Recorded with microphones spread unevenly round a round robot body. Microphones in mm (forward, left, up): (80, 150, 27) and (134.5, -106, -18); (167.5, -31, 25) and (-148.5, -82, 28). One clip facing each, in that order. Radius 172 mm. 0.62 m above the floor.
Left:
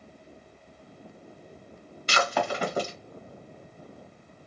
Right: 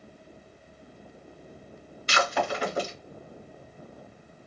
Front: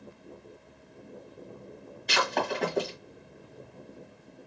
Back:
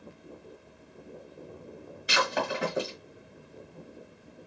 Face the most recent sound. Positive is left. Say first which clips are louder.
# even, even
turn(degrees=105)